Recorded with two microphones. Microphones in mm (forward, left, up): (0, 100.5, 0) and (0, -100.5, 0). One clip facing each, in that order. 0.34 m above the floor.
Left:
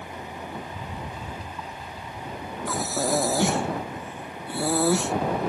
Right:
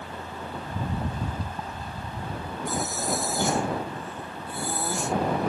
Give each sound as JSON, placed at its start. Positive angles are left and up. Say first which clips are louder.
{"t": 0.6, "sound": "a rattle", "louder": "right 5 dB", "side_deg": -50}
{"t": 2.7, "sound": "breathing", "louder": "left 4 dB", "side_deg": 80}